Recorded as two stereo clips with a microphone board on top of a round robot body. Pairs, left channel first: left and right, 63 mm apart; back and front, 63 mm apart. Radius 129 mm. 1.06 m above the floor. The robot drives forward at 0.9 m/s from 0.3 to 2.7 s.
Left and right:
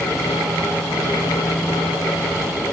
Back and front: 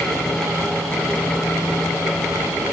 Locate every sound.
Only background noise.